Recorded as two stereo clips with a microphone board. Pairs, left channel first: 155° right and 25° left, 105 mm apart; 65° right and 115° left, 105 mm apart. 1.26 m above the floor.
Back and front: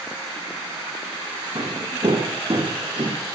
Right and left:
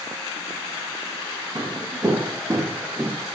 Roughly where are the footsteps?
Ahead left.